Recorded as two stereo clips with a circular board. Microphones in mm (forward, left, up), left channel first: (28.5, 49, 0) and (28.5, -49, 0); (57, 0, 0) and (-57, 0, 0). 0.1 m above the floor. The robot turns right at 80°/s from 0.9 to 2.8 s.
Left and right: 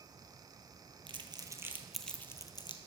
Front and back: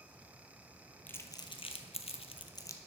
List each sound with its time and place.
1.1 s crumpling: 75° right, 0.9 m; by 2.8 s 65° left, 0.9 m